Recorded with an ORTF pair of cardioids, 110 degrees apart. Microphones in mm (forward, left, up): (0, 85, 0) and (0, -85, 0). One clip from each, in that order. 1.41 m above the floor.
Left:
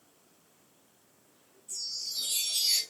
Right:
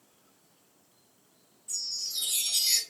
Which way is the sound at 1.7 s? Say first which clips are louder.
Right 2 dB; 55° right.